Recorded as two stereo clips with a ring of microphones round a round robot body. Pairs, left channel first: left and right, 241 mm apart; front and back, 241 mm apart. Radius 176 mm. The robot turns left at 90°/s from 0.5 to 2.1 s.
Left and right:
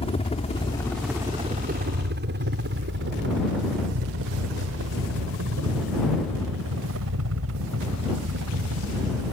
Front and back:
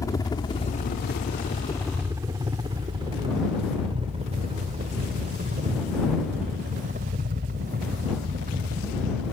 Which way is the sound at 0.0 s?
60° left.